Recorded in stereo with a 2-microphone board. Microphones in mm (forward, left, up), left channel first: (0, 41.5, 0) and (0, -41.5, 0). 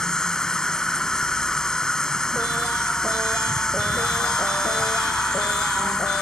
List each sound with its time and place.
0.0 s an insect: 10° left (ahead or behind)